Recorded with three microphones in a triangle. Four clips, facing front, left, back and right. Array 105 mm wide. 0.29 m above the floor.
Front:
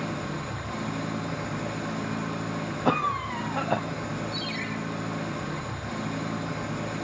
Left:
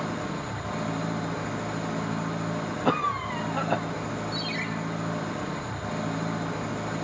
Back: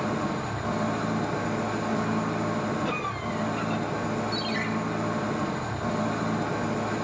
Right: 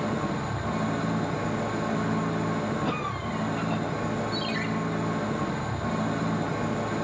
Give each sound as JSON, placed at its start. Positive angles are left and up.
{"t": 0.0, "sound": "an engine running", "azimuth_deg": -145, "distance_m": 8.0}
{"t": 2.9, "sound": "a cough", "azimuth_deg": 40, "distance_m": 1.6}
{"t": 4.3, "sound": "a ringtone", "azimuth_deg": -145, "distance_m": 4.0}